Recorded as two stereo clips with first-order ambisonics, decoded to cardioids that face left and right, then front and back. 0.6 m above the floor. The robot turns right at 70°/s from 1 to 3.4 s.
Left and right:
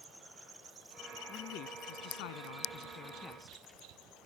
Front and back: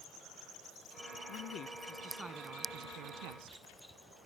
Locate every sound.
1.3 s a man speaking: 30° left; by 3.6 s straight behind